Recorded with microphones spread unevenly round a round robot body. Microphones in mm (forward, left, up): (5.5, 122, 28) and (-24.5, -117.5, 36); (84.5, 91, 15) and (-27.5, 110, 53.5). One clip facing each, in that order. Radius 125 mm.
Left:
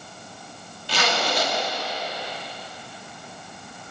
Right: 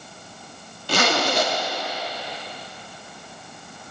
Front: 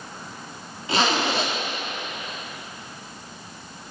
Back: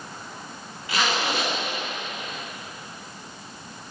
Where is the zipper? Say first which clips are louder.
Right 4 dB, front 3 dB; 60° right, 1.6 m.